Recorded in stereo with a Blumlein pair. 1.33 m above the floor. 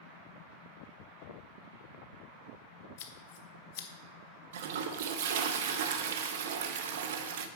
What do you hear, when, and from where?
3.0 s scissors: 50° left, 0.9 m
4.5 s a toilet flushing: 55° right, 0.8 m